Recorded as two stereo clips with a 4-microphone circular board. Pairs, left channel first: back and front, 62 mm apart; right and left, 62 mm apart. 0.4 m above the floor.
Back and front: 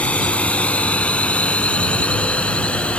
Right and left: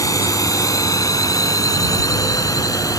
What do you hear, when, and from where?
0.0 s a drone: 110° right